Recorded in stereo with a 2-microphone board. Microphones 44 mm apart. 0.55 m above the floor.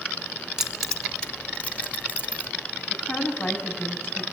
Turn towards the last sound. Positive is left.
turn(degrees=50)  # may be behind; listen again after turning